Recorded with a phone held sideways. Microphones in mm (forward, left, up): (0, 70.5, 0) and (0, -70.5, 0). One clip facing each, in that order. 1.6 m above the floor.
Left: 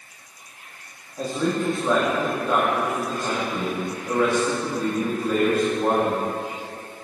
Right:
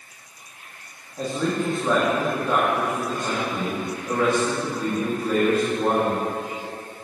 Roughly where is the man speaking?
Centre.